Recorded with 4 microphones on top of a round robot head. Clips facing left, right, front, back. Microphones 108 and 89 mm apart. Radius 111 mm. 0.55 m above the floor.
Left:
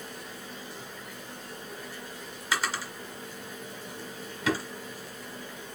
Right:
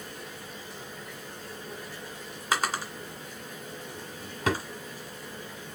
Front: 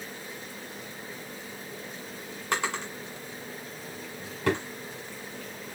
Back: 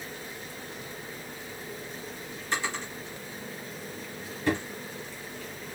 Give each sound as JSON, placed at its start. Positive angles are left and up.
{"t": 2.5, "sound": "a drawer", "azimuth_deg": -45, "distance_m": 1.7}